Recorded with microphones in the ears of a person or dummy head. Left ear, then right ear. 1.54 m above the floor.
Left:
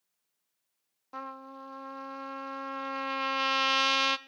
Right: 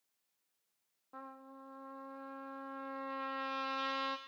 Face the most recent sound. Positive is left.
turn(degrees=80)